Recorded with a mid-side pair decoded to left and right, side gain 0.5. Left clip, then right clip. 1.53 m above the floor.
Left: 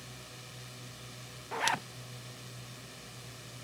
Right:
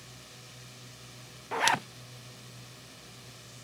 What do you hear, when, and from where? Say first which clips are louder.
0.0 s a drone: left 1 dB; 15° left
1.5 s a zipper: right 5 dB; 30° right